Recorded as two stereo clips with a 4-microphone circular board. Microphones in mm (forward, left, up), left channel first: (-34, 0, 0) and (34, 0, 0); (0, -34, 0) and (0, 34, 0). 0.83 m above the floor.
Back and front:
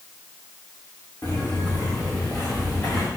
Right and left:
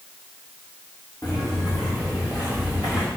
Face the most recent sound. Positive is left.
turn(degrees=-115)